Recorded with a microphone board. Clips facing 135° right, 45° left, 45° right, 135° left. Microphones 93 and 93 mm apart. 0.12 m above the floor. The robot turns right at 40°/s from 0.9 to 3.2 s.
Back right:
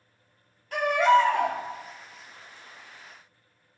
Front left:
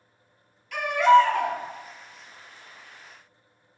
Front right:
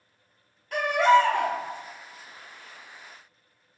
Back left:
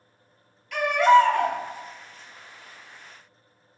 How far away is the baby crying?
About 0.8 m.